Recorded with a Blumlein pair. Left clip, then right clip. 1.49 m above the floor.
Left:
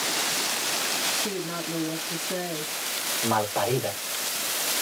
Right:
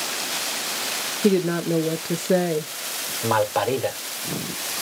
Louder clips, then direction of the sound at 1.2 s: Right 9 dB; 45° right.